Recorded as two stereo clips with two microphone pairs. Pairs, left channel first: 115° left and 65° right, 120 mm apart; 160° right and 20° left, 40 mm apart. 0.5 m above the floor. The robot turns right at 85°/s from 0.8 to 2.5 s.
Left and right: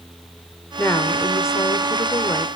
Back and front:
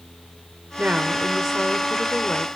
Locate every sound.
0.8 s a woman speaking: 45° left, 1.3 m; by 2.5 s 175° right, 1.3 m